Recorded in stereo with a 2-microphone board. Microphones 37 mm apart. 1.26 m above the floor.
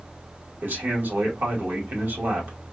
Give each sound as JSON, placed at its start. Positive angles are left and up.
{"t": 0.6, "sound": "a man speaking", "side_deg": -70, "distance_m": 1.5}